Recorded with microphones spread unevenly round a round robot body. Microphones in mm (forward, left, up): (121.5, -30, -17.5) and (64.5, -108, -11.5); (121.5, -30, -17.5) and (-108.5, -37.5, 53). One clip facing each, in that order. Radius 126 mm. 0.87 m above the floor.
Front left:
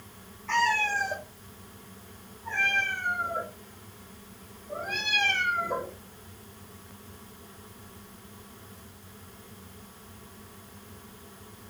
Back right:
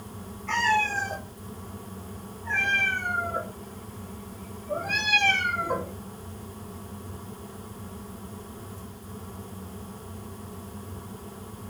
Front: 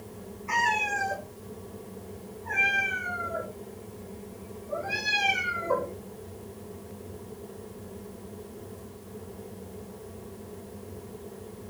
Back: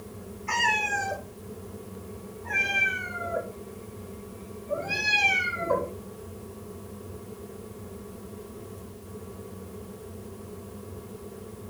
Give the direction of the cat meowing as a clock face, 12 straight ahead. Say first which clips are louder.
Back right 1 dB, even; 6 o'clock.